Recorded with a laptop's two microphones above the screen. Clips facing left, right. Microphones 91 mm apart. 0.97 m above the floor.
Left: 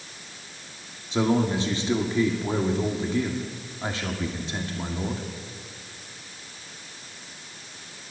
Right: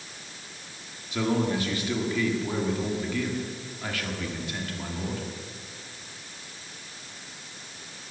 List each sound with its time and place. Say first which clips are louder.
1.1 s a man speaking: left 3 dB; 25° left (ahead or behind), 2 m